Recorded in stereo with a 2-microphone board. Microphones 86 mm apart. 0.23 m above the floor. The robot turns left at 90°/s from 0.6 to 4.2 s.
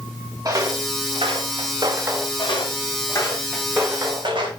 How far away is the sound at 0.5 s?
About 2.5 m.